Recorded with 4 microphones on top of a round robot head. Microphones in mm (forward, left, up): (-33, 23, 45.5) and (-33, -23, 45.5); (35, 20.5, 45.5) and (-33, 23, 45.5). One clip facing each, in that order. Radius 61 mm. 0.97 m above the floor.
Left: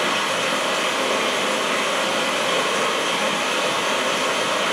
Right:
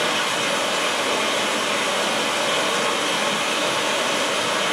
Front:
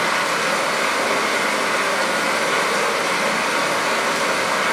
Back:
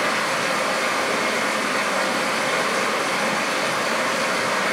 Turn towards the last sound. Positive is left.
turn(degrees=25)